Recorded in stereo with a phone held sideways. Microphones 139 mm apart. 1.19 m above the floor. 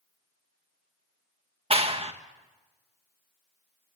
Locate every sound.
1.7 s a clap: 45° right (ahead or behind), 1.3 m